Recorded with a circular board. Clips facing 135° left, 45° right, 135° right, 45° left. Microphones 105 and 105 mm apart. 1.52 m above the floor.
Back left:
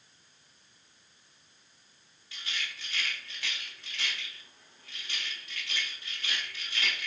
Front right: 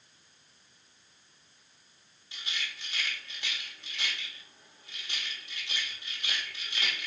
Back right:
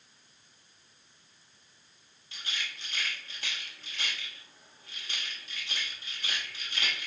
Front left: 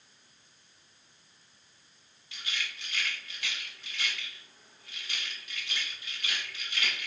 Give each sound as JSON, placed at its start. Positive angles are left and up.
{"t": 2.3, "sound": "a rattle", "azimuth_deg": -100, "distance_m": 1.2}